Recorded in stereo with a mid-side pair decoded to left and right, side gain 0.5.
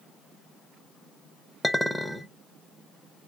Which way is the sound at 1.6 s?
5° left.